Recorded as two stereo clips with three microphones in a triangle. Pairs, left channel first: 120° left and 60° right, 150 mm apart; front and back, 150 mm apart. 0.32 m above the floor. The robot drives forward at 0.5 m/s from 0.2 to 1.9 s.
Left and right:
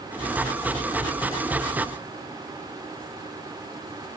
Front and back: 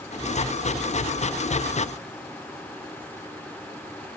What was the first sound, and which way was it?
Only background noise.